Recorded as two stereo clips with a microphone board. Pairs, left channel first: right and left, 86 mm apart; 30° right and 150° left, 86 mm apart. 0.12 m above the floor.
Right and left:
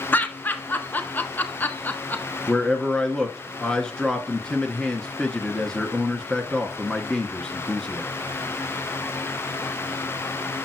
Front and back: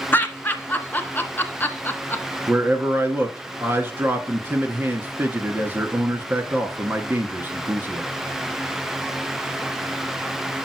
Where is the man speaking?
165° right, 1.4 m.